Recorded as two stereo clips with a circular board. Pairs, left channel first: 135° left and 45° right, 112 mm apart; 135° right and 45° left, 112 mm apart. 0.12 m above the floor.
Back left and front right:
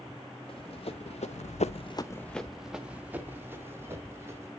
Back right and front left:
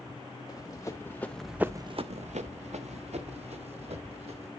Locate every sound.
0.5 s running footsteps: 170° left, 1.5 m; by 4.5 s 20° left, 3 m